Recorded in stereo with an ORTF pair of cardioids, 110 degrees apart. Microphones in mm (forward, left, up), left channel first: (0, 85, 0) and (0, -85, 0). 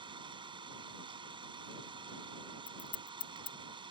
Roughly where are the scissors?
Ahead left.